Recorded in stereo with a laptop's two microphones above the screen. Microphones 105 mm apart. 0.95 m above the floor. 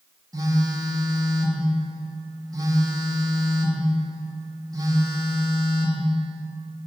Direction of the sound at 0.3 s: 35° right (ahead or behind).